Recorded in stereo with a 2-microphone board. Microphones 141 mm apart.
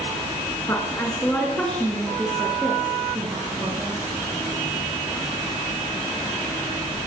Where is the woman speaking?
20° left (ahead or behind), 5 m; by 4.2 s 20° right (ahead or behind), 7 m.